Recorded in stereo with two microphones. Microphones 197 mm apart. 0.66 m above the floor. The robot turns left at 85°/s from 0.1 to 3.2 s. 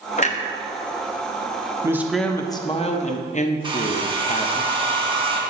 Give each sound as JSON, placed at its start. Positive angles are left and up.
{"t": 0.2, "sound": "a clunk", "side_deg": 35, "distance_m": 0.6}
{"t": 1.8, "sound": "a man speaking", "azimuth_deg": -155, "distance_m": 0.7}
{"t": 3.6, "sound": "a hair dryer", "side_deg": -25, "distance_m": 1.0}